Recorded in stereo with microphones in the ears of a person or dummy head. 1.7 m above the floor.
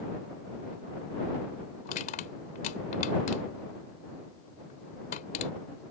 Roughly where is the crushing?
Left.